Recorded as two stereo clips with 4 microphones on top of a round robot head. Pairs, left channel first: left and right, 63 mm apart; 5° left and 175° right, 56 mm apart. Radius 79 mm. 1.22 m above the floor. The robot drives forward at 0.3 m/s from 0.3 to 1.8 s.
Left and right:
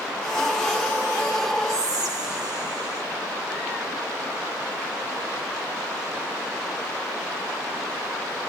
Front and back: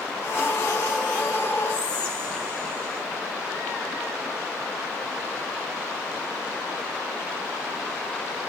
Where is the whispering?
65° right, 0.8 m.